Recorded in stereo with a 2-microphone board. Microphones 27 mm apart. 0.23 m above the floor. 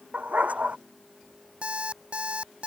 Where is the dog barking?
70° right (ahead or behind).